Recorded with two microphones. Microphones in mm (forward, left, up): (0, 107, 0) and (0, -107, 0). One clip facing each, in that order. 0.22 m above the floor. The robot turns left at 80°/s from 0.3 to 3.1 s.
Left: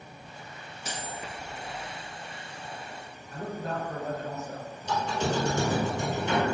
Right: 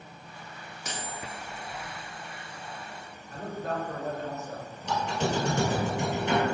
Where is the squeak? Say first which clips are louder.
Even; 70° right (ahead or behind), 1.4 m.